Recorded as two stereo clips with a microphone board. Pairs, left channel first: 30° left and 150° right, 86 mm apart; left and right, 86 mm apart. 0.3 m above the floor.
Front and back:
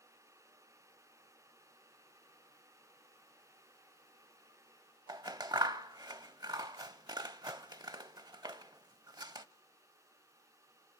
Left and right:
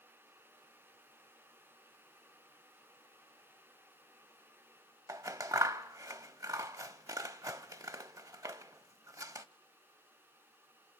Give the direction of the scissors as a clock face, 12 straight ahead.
4 o'clock.